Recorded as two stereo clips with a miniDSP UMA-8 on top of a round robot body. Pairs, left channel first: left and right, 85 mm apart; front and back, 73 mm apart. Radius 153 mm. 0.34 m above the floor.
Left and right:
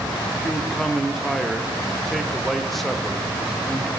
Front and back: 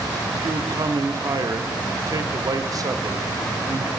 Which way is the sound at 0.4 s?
Straight behind.